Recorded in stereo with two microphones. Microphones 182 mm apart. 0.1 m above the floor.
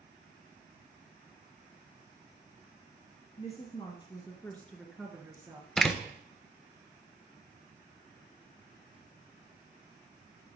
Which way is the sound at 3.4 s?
40° left (ahead or behind).